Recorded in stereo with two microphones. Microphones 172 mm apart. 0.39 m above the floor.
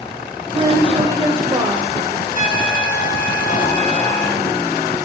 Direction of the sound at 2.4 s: 50° left (ahead or behind).